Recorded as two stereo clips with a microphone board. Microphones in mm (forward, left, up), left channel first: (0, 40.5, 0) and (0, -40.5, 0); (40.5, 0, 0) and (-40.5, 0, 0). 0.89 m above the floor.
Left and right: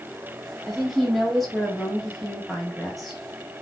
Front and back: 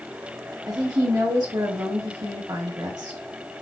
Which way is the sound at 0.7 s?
Straight behind.